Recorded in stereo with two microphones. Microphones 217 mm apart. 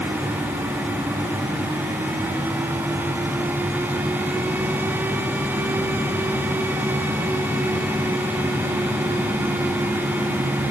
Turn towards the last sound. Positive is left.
No sound to turn to.